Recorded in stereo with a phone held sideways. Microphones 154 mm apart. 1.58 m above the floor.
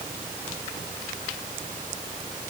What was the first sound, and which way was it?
Only background noise.